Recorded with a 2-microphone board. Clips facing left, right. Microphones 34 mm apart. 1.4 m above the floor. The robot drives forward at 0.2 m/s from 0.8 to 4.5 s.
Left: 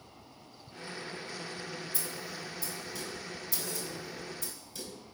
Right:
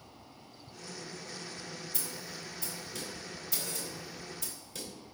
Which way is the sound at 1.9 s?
55° right (ahead or behind).